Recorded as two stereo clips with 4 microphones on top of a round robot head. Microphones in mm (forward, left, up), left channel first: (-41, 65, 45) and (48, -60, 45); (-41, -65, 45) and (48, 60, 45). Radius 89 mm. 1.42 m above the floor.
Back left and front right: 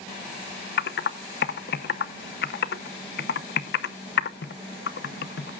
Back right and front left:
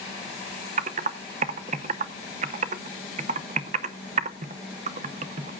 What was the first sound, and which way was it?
Typing on a keyboard, 100° left.